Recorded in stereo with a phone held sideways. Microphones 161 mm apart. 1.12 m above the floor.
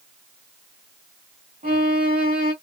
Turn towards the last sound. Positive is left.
turn(degrees=-60)  # may be behind; listen again after turning